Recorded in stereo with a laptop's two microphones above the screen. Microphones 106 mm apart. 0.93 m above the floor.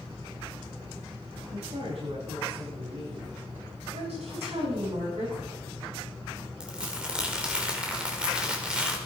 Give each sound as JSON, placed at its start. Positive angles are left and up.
{"t": 1.5, "sound": "a woman speaking", "side_deg": -70, "distance_m": 8.5}
{"t": 3.9, "sound": "a woman speaking", "side_deg": -85, "distance_m": 8.0}
{"t": 6.6, "sound": "crumpling", "side_deg": -10, "distance_m": 3.0}